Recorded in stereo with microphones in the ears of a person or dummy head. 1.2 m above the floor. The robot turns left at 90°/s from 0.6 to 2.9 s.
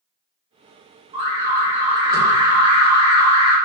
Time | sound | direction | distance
1.1 | an alarm | 55° right | 1.1 m